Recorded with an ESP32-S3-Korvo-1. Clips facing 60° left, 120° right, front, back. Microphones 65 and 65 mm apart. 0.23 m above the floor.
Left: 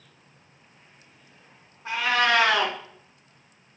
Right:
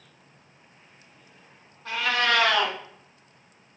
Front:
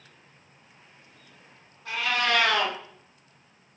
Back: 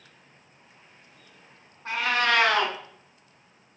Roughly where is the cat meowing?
Behind left.